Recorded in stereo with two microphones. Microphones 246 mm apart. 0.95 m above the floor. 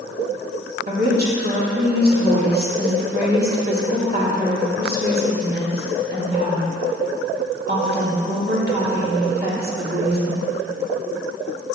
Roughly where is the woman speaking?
Right.